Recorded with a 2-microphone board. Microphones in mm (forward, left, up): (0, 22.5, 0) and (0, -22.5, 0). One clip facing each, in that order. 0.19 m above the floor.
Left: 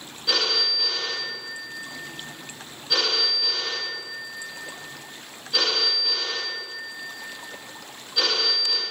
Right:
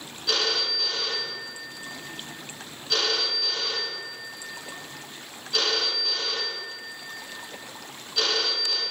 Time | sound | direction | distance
0.3 | a phone ringing | 5° left (ahead or behind) | 1.6 m